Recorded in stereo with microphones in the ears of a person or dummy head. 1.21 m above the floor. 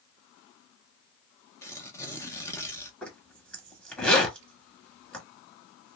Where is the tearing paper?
15° left (ahead or behind), 0.7 m.